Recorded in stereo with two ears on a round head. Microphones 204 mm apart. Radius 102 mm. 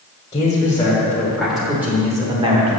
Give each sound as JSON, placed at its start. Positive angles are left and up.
{"t": 0.3, "sound": "a man speaking", "side_deg": 20, "distance_m": 1.7}